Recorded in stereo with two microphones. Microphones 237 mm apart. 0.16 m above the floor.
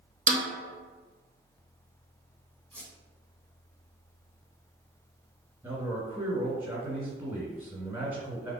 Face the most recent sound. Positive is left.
turn(degrees=-10)  # may be behind; listen again after turning